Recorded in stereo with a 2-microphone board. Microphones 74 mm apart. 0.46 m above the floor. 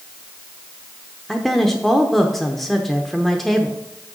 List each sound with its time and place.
1.3 s a woman speaking: 5° left (ahead or behind), 0.8 m